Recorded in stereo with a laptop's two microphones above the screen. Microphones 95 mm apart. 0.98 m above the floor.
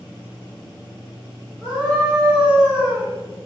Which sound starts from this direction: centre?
A scream, at 1.6 s.